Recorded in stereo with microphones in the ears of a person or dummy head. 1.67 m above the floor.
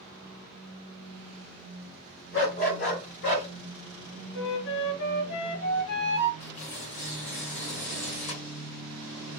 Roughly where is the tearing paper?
Left.